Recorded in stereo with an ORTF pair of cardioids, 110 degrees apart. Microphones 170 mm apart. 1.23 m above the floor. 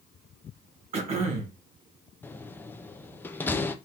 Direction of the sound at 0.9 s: 40° right.